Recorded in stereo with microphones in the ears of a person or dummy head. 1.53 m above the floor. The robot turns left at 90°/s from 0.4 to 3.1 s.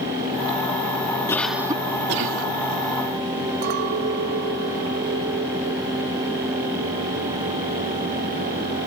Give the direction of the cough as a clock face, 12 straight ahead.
11 o'clock.